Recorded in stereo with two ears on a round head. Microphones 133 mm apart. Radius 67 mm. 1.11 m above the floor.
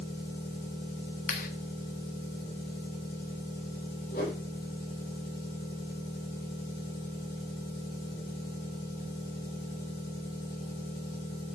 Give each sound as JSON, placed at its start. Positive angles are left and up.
{"t": 0.0, "sound": "an engine running", "side_deg": 65, "distance_m": 7.5}
{"t": 1.3, "sound": "a clap", "side_deg": 55, "distance_m": 1.3}
{"t": 4.1, "sound": "a whoosh", "side_deg": 60, "distance_m": 8.0}